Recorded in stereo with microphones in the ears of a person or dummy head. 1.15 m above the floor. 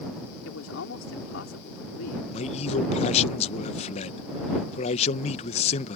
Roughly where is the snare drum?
No snare drum in this recording.